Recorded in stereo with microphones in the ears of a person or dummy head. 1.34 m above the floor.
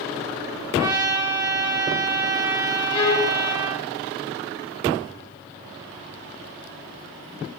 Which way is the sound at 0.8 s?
25° right (ahead or behind).